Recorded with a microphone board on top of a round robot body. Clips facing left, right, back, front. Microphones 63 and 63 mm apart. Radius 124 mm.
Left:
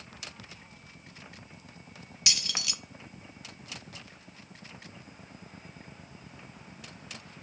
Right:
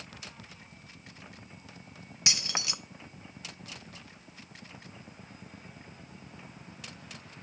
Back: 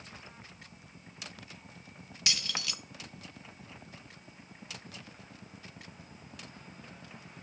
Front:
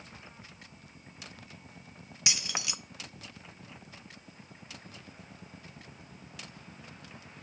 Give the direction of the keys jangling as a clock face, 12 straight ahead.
2 o'clock.